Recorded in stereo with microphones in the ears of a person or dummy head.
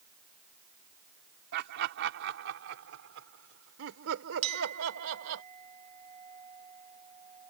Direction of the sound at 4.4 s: 35° right (ahead or behind).